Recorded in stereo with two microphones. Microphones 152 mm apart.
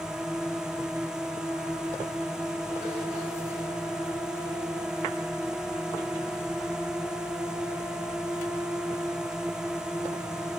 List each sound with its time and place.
0.0 s a drone: 5° right (ahead or behind)